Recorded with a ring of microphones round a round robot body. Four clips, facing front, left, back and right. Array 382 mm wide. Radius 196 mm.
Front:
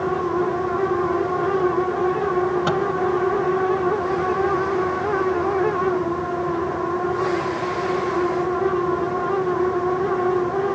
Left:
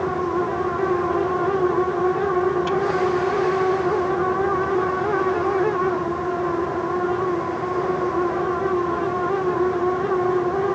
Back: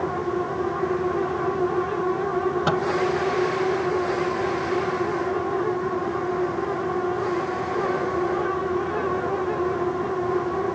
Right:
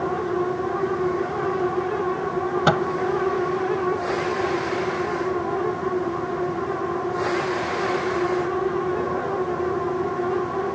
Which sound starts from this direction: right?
A microwave, at 2.7 s.